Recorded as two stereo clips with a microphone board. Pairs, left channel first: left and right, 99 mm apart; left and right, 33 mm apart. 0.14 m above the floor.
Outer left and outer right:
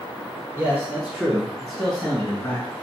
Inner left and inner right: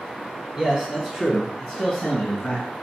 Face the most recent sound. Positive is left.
turn(degrees=25)  # may be behind; listen again after turning